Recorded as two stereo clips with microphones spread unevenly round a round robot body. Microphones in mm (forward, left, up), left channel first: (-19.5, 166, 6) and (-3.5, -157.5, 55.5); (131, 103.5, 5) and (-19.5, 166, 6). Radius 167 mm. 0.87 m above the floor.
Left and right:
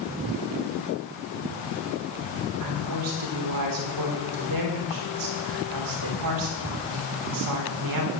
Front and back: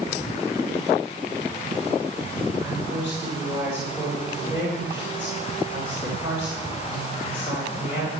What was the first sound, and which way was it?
A woman speaking, 120° right.